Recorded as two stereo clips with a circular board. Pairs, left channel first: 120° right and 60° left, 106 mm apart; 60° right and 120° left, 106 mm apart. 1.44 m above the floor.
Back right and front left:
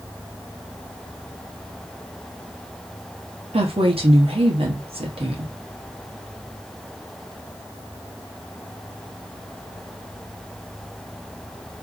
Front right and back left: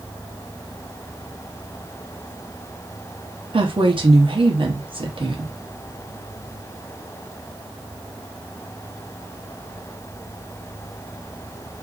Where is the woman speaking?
85° left, 0.8 m.